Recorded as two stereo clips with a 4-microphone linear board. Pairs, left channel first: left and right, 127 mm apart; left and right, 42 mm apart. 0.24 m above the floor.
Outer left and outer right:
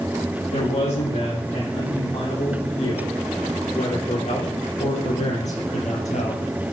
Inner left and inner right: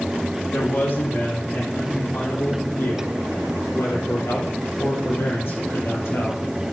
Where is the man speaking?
65° left (ahead or behind), 8 m.